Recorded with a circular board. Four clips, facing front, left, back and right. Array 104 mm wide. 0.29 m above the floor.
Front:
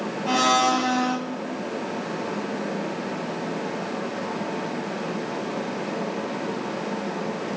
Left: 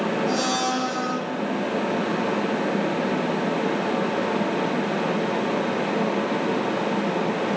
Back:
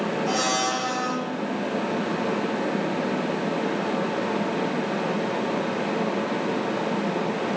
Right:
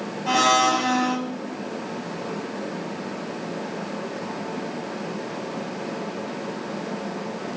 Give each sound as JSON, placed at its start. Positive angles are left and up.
{"t": 0.3, "sound": "a blender", "azimuth_deg": -70, "distance_m": 1.6}